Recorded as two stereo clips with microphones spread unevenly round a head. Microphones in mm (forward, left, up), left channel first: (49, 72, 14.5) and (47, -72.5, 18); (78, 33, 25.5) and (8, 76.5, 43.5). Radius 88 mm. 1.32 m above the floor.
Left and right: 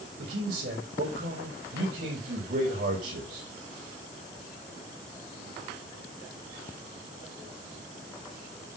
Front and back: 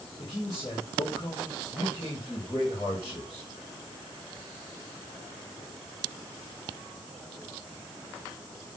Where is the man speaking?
100° right, 4 m.